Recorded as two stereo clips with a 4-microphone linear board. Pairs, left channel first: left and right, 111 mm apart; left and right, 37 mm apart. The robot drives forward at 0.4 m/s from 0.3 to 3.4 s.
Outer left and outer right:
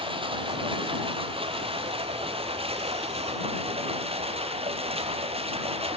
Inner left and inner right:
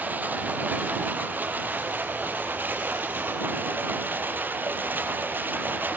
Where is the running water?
50° right (ahead or behind), 5.5 m; by 6.0 s 60° right (ahead or behind), 5 m.